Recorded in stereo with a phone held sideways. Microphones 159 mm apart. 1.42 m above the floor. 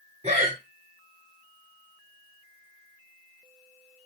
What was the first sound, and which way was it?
Breathing, 40° right (ahead or behind).